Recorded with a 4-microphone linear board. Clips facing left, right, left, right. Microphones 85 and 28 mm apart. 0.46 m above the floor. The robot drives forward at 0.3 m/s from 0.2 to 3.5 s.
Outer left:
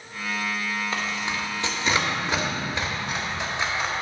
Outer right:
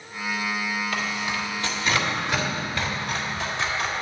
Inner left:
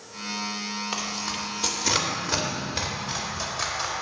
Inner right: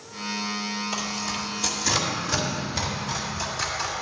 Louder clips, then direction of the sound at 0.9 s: Outer right 1 dB, inner right 1 dB; 25° left (ahead or behind).